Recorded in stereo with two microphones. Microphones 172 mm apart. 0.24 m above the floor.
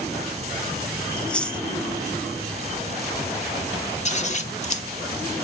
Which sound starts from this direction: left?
Scissors, at 4.0 s.